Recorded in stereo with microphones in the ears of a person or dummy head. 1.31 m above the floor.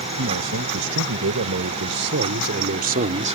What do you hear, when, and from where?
0.2 s a man speaking: 80° right; by 3.4 s 35° right (ahead or behind)